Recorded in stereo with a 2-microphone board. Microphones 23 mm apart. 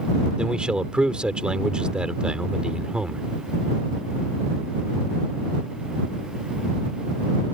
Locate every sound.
0.4 s a man speaking: 50° right (ahead or behind)